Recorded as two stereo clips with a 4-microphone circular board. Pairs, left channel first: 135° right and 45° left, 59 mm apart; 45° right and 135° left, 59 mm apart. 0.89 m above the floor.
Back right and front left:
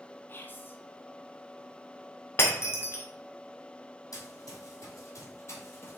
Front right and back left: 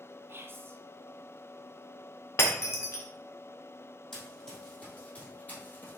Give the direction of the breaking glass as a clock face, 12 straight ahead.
3 o'clock.